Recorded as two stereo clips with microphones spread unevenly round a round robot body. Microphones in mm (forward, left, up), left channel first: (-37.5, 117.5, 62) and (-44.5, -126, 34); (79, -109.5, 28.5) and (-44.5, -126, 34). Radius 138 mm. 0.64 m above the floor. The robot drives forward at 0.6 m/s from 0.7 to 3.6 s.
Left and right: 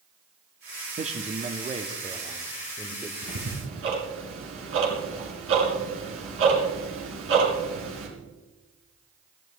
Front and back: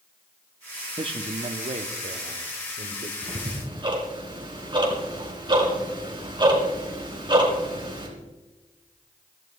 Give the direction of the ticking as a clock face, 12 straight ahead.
4 o'clock.